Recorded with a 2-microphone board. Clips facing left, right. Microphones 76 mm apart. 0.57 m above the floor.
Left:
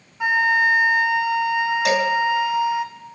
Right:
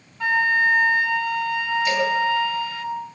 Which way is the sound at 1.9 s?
80° left.